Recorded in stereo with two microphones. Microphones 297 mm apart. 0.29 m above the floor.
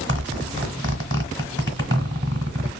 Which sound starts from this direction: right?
A zipper, at 0.1 s.